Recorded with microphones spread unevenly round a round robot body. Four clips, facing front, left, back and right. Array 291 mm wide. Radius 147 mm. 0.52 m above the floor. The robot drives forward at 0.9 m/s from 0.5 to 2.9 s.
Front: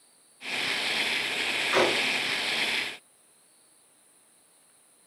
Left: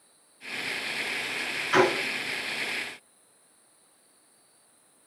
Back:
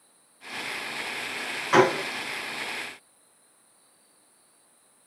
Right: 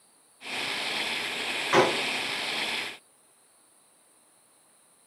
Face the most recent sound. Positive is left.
turn(degrees=-150)